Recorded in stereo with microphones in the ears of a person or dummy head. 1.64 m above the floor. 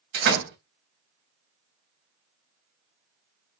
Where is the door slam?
65° right (ahead or behind), 1.6 m.